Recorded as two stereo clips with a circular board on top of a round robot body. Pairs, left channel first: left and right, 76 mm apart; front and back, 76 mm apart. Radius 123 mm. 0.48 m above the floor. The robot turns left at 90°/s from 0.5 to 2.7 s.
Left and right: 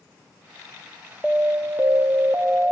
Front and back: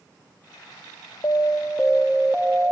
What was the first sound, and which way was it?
An alarm, 10° right.